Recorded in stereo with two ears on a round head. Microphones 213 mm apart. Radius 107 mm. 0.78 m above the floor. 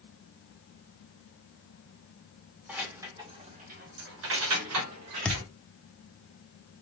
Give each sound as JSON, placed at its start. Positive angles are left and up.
{"t": 2.7, "sound": "keys jangling", "side_deg": -5, "distance_m": 1.8}
{"t": 5.2, "sound": "a thud", "side_deg": 5, "distance_m": 0.7}